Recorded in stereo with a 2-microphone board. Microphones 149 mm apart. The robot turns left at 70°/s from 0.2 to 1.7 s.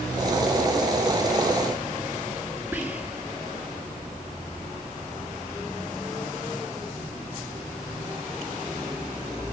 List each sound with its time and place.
2.7 s whispering: 10° right (ahead or behind), 1.4 m